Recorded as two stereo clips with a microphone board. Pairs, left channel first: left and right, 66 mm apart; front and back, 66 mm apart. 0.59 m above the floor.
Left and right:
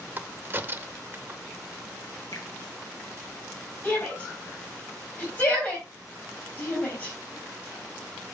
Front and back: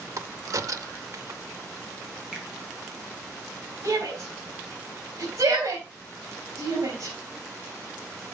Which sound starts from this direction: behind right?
A crack, at 0.2 s.